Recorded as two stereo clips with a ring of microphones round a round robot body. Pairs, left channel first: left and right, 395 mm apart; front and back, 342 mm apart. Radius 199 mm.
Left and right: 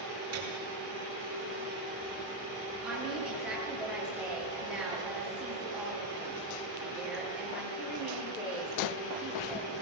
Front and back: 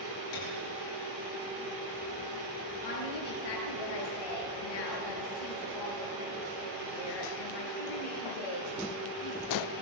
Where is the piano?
35° right, 8 m.